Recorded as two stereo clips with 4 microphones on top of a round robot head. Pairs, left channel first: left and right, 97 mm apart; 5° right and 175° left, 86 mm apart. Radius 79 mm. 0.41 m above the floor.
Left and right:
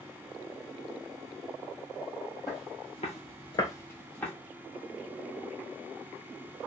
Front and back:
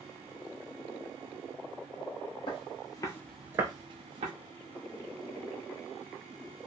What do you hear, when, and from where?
2.5 s footsteps: 25° left, 1.1 m; by 4.3 s 165° left, 1.1 m